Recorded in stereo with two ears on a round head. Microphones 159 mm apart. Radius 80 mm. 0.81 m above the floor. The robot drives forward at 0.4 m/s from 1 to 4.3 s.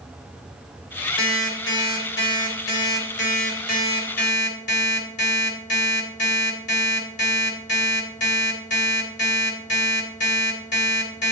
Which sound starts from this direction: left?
An alarm clock, at 1.2 s.